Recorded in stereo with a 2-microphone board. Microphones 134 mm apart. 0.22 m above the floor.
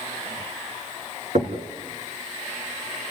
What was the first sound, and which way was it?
Knocking, 60° right (ahead or behind).